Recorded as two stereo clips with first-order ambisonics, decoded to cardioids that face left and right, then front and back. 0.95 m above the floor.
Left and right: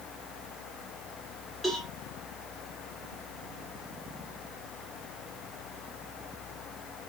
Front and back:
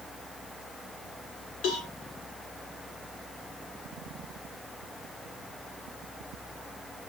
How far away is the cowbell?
About 3.5 m.